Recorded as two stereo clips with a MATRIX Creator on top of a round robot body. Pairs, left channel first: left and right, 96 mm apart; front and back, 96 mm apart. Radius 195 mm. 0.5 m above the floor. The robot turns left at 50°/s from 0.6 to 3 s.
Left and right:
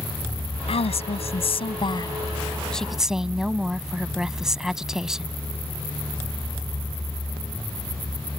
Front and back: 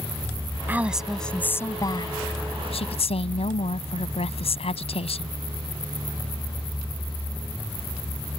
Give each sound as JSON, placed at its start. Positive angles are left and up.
{"t": 0.7, "sound": "a woman speaking", "azimuth_deg": 110}